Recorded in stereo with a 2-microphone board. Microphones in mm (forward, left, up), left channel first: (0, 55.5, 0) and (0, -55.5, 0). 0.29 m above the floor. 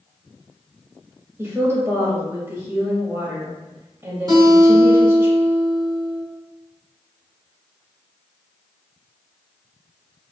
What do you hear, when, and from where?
1.4 s a woman speaking: 20° right (ahead or behind), 1.2 m
4.3 s a guitar: 35° right (ahead or behind), 1.9 m